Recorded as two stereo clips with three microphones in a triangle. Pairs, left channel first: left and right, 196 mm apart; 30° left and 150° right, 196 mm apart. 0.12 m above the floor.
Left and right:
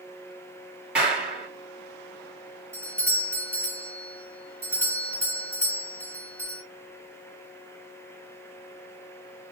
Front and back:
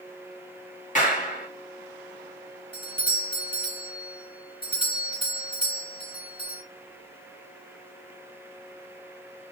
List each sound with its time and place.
0.9 s a clap: 5° right, 2 m
2.7 s a doorbell: 20° right, 3 m